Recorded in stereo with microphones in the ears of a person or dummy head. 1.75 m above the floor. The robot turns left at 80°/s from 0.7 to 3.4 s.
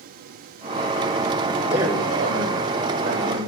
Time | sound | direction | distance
1.7 | a man speaking | 5° right | 5.5 m